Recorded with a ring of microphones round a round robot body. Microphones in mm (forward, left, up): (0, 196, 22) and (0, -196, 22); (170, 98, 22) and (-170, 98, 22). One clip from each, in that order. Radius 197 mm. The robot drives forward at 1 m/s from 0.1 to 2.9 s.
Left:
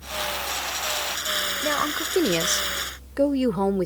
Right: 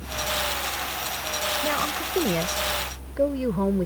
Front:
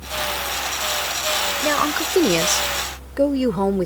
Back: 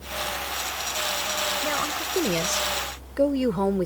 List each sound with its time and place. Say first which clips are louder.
1.6 s a woman speaking: left 1 dB, front 6 dB; 25° left; by 3.9 s 80° left